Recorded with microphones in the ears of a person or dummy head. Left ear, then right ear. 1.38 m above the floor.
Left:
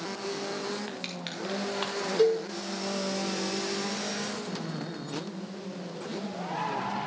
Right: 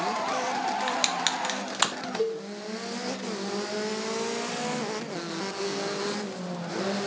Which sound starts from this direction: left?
A cowbell, at 2.2 s.